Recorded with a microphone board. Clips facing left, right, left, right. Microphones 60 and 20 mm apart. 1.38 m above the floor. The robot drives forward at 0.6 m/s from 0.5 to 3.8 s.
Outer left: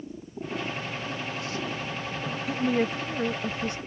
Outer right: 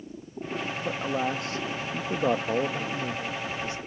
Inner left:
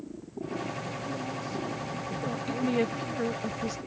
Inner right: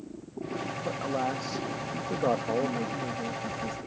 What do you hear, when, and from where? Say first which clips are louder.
0.8 s a man speaking: outer right 6 dB, inner right 5 dB; 60° right (ahead or behind); by 3.2 s 65° right (ahead or behind)
2.5 s a woman speaking: outer left 2 dB, inner left 1 dB; 75° left (ahead or behind); by 3.8 s 55° left (ahead or behind)